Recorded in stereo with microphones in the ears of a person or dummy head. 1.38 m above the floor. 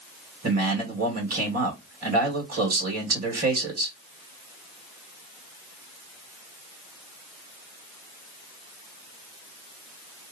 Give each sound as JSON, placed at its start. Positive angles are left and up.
{"t": 0.4, "sound": "a man speaking", "side_deg": -40, "distance_m": 1.6}